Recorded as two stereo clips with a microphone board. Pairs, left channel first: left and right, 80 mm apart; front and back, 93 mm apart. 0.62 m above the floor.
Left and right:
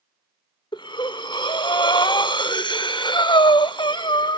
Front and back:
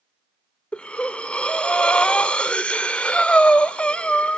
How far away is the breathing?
About 0.8 m.